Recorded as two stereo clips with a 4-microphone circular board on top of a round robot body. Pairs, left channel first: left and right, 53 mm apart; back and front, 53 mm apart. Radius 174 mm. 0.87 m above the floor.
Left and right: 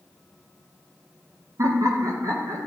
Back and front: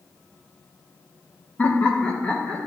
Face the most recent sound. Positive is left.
turn(degrees=-100)